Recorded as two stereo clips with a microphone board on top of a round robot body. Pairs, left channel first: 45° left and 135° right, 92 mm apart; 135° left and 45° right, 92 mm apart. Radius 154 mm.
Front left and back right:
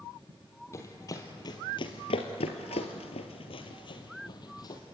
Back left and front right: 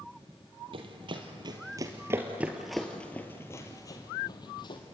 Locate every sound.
0.7 s running footsteps: 15° right, 1.9 m; by 4.8 s 95° left, 2 m